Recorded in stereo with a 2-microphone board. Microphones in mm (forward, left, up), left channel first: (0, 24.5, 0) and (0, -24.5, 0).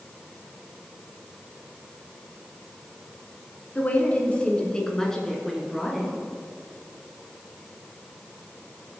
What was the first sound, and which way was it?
A woman speaking, 35° left (ahead or behind).